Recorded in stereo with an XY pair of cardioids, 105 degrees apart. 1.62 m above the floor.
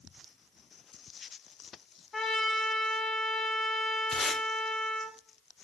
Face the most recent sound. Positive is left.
turn(degrees=50)